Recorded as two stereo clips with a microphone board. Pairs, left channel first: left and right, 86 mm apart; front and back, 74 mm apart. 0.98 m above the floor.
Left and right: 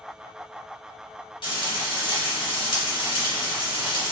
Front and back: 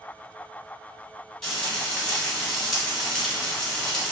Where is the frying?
80° left, 1.1 m.